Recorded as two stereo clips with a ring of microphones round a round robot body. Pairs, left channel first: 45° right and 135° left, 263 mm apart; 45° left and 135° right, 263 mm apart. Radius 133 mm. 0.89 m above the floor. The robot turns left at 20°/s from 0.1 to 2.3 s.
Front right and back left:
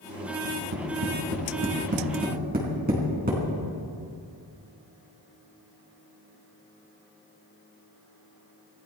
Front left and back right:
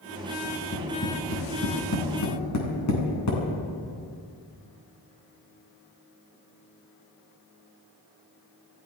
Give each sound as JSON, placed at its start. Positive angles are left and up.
{"t": 0.4, "sound": "tapping", "azimuth_deg": 115, "distance_m": 4.5}